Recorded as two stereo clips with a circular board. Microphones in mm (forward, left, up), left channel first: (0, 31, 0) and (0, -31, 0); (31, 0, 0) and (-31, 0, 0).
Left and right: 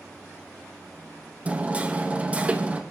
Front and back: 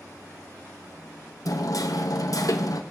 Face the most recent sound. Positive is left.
turn(degrees=-25)